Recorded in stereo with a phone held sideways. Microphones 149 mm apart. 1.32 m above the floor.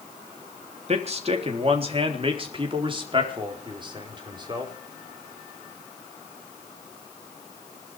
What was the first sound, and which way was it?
A man speaking, 45° right (ahead or behind).